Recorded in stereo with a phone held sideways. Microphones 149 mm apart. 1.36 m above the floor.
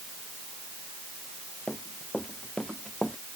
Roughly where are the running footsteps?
Centre.